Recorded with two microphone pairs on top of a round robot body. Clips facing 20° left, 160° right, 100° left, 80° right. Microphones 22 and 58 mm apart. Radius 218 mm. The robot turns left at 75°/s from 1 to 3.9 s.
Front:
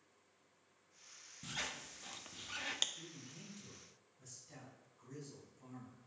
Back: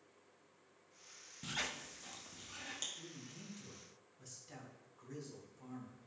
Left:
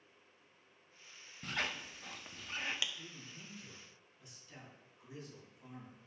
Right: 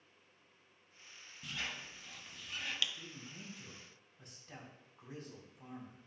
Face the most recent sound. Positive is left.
turn(degrees=-105)